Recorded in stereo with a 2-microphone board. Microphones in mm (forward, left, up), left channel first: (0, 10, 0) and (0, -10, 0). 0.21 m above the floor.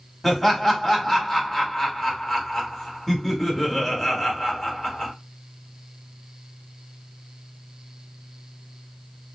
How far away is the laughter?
About 1.0 m.